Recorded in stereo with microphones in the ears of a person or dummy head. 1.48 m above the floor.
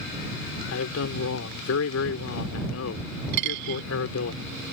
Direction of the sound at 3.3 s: 50° right (ahead or behind).